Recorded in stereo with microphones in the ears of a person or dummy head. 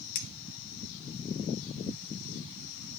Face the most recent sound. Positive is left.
turn(degrees=50)  # may be behind; listen again after turning